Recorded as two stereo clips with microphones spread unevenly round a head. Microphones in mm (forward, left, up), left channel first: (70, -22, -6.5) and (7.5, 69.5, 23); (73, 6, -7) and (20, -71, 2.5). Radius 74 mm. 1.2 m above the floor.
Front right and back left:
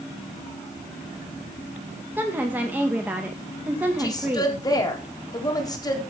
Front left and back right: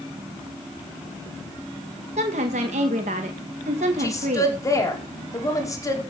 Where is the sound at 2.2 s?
150° right, 1.6 m.